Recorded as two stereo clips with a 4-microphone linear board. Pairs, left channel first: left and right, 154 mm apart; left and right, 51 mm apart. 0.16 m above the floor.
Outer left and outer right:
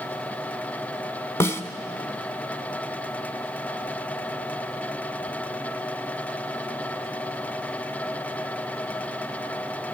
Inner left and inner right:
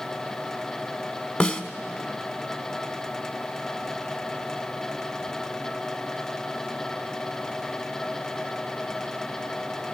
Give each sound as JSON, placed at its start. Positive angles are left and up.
{"t": 1.4, "sound": "a snare drum", "side_deg": 15, "distance_m": 0.9}